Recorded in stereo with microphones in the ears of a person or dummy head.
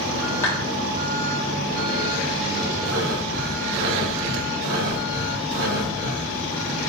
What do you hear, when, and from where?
0.4 s a clap: 10° left (ahead or behind), 1.9 m
2.9 s breathing: 80° right, 4 m